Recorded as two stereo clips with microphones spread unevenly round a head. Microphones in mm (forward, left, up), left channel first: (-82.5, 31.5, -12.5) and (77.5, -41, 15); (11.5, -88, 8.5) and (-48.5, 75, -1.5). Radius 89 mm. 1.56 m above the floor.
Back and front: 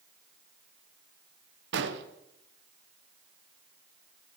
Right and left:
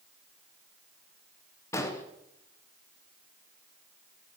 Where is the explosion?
5° left, 1.1 m.